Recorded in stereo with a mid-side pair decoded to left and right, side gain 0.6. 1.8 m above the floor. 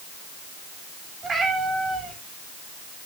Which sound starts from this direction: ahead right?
A cat meowing, at 1.2 s.